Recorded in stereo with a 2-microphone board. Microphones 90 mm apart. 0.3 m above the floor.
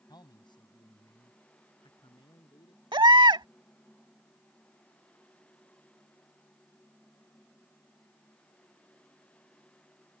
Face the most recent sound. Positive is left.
turn(degrees=-60)  # may be behind; listen again after turning